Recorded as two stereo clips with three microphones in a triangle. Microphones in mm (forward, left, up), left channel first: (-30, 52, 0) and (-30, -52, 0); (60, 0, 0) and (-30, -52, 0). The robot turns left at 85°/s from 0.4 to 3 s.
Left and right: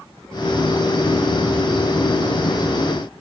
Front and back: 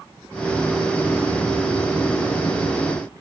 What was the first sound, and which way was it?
Only background noise.